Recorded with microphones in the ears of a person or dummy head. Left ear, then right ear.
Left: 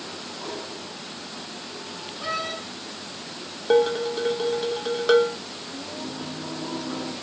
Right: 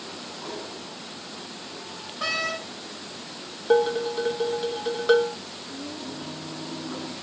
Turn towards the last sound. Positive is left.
turn(degrees=55)  # may be behind; listen again after turning